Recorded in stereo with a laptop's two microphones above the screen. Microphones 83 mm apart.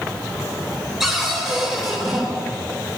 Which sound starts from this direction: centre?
A cupboard door, at 1.0 s.